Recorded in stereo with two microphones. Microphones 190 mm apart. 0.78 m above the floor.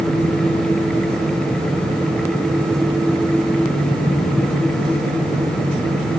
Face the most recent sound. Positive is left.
No sound to turn to.